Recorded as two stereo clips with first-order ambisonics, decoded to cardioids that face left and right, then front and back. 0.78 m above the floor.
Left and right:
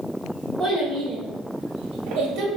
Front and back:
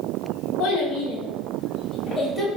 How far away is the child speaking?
About 1.1 m.